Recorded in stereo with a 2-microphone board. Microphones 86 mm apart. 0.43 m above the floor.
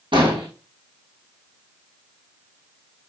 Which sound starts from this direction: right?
An explosion, at 0.1 s.